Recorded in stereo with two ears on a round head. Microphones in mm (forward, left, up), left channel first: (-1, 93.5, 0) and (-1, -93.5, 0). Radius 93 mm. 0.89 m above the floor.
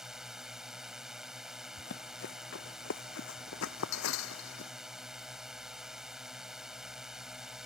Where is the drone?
Centre (ahead or behind).